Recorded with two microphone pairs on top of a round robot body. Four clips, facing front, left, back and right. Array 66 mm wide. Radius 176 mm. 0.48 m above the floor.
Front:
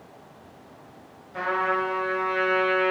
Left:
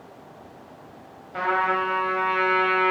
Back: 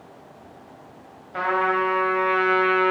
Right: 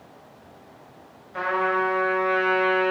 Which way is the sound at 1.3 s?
155° left.